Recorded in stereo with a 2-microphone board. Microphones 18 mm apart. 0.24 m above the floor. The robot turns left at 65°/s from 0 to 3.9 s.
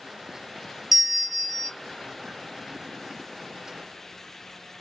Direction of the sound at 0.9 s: 155° right.